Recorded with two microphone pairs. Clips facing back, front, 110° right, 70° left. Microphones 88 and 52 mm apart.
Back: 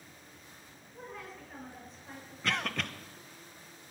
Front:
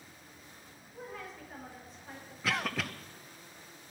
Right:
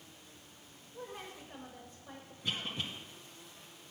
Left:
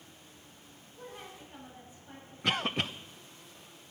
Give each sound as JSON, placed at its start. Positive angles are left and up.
{"t": 0.9, "sound": "a woman speaking", "azimuth_deg": -90, "distance_m": 7.0}
{"t": 2.4, "sound": "a cough", "azimuth_deg": 85, "distance_m": 0.9}